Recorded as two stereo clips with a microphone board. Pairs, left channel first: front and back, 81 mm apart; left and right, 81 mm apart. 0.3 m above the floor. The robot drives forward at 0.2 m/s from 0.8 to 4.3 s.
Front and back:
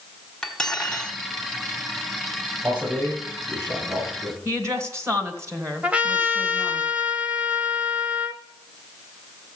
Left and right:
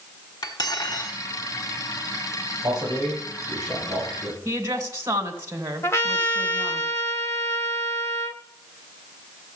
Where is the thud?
No thud in this recording.